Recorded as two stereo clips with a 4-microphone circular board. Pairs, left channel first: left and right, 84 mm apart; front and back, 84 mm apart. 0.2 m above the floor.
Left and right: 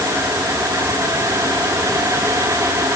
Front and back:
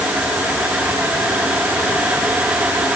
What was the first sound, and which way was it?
Only background noise.